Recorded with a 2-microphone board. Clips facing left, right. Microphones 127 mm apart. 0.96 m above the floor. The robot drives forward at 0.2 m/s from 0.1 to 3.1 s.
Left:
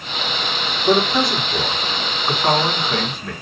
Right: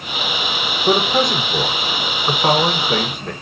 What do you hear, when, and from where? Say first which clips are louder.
0.9 s a man speaking: even; 50° right (ahead or behind), 1.1 m; by 3.3 s 45° right (ahead or behind), 1.1 m